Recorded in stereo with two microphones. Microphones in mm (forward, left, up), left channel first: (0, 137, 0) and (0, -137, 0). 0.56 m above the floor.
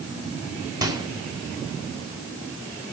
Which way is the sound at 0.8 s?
15° right (ahead or behind).